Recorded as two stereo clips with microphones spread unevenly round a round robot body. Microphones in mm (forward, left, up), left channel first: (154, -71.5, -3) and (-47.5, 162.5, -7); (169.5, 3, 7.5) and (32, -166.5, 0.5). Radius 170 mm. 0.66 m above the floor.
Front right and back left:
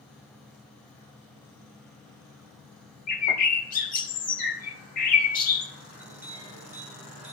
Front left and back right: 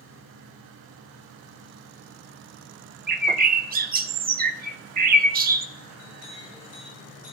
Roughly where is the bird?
Right.